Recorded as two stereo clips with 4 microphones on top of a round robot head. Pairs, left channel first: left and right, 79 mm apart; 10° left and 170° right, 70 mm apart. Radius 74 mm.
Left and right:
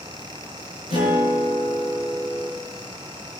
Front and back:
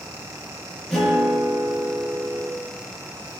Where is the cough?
No cough in this recording.